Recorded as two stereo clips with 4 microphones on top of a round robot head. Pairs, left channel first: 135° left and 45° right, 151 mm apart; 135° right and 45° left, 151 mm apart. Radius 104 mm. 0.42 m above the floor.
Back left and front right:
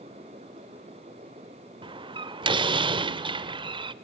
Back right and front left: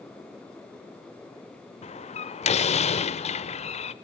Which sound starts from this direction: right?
A door slam, at 1.8 s.